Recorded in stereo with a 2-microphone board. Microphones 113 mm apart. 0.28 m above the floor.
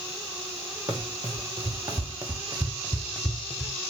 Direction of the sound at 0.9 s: 50° right (ahead or behind).